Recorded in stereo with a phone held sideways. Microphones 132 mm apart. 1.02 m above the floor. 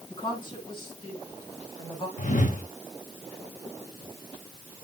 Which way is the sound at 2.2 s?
70° left (ahead or behind).